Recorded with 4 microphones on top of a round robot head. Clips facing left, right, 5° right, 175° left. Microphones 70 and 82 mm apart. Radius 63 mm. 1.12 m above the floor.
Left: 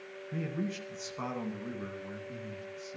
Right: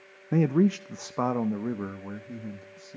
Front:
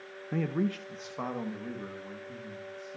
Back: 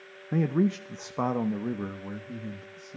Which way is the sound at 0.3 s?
100° right.